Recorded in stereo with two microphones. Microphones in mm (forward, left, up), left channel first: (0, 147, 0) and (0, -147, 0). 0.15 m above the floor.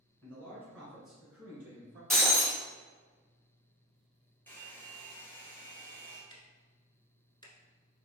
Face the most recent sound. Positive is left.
turn(degrees=15)  # may be behind; listen again after turning